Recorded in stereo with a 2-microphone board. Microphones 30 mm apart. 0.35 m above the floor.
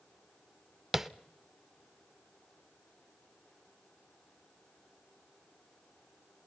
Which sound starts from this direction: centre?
Tapping, at 0.9 s.